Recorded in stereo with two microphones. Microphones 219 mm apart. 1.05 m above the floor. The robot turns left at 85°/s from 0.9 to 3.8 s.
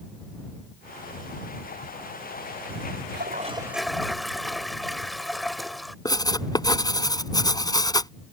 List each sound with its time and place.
3.1 s a toilet flushing: 125° right; by 6.0 s straight behind
6.0 s writing: 20° left (ahead or behind)